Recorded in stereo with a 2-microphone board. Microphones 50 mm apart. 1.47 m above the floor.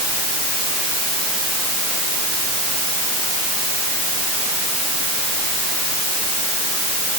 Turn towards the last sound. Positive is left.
No sound to turn to.